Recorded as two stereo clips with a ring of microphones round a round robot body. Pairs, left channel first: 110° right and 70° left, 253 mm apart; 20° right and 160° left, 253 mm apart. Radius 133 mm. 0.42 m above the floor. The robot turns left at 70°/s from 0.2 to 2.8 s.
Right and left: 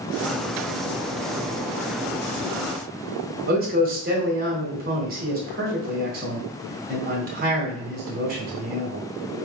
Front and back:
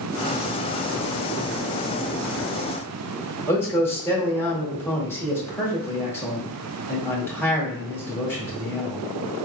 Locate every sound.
3.5 s a man speaking: 55° left, 1.5 m